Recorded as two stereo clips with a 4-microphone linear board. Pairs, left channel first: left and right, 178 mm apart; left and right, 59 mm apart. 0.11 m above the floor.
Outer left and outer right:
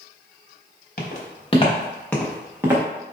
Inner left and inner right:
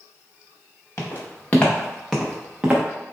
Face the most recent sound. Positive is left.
turn(degrees=-20)  # may be behind; listen again after turning